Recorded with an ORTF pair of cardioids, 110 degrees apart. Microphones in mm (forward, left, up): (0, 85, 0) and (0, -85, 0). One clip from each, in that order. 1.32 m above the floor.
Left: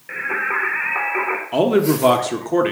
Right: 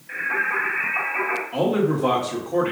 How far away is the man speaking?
About 0.8 m.